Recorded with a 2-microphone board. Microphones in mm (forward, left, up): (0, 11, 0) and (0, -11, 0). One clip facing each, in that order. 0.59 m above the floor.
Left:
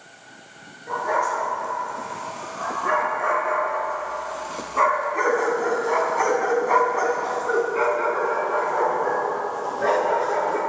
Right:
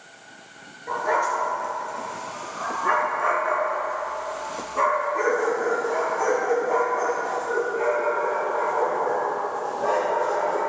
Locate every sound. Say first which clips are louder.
0.9 s a dog barking: even; 15° right (ahead or behind), 4 m; by 10.6 s 75° left (ahead or behind), 3.5 m